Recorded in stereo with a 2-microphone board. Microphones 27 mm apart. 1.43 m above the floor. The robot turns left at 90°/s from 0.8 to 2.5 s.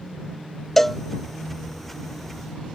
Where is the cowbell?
10° left (ahead or behind); by 1.0 s 5° right (ahead or behind).